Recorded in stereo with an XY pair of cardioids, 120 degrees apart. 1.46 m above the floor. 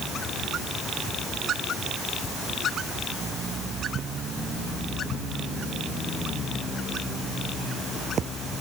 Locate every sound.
Only background noise.